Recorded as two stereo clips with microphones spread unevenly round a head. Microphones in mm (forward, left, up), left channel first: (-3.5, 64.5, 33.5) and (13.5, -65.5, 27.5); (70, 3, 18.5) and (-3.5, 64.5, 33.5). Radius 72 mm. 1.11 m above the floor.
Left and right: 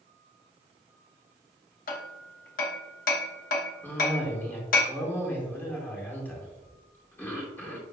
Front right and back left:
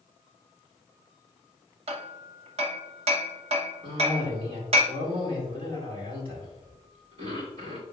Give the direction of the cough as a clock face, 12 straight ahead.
6 o'clock.